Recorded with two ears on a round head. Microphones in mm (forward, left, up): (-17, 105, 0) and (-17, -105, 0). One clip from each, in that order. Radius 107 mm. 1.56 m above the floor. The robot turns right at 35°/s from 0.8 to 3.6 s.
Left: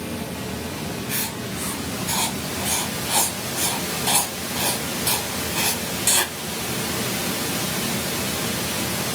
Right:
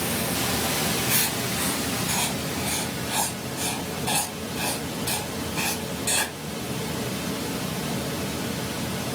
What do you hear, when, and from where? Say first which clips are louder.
0.0 s running water: right 4 dB; 45° right, 1.4 m; by 9.2 s 55° left, 1.4 m
1.1 s writing: right 3 dB; 10° right (ahead or behind), 2.5 m; by 6.3 s 55° left (ahead or behind), 2.5 m